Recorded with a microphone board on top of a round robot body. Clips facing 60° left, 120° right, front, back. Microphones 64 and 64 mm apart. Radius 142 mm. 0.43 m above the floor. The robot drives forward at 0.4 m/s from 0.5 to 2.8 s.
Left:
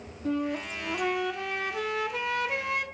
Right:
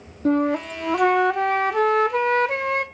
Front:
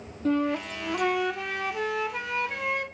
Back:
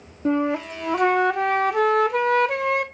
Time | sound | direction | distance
0.2 | a flute | 120° right | 0.6 m